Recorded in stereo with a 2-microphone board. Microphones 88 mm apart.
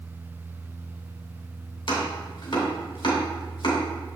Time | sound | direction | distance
1.9 | chopping | 75° left (ahead or behind) | 2.5 m